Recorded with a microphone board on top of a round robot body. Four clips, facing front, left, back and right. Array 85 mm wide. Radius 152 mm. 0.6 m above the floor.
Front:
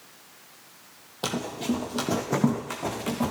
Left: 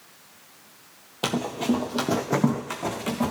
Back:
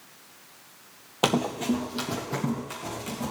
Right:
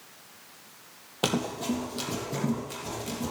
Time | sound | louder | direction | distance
1.2 | running footsteps | left 3 dB, back 4 dB | straight behind | 0.7 m